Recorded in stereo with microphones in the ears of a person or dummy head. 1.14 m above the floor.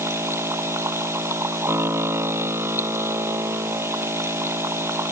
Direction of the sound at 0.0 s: 15° right (ahead or behind).